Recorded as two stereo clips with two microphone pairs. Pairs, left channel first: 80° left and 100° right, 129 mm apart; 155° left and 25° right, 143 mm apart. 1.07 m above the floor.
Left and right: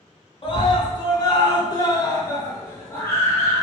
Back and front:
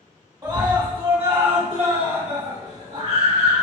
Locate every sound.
0.4 s a scream: 35° left, 1.5 m; by 3.6 s 5° left, 2.5 m